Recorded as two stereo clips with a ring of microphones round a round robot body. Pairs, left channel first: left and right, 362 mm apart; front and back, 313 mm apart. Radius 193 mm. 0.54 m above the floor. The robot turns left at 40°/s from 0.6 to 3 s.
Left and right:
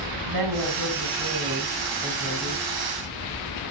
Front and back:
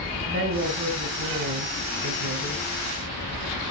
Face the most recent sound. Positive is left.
turn(degrees=140)